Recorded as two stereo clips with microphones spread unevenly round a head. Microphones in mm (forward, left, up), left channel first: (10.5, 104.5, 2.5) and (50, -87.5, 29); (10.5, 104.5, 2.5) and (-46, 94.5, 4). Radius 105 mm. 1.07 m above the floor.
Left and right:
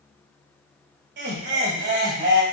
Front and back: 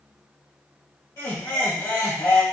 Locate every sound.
1.2 s laughter: 45° right, 1.5 m